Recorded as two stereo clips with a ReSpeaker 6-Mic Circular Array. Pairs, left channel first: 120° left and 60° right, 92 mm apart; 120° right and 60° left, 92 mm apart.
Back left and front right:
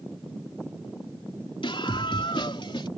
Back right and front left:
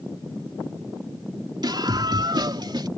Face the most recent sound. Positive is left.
turn(degrees=95)